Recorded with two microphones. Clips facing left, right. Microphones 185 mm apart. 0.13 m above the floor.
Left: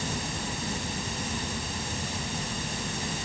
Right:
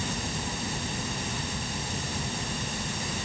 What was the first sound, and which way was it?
Only background noise.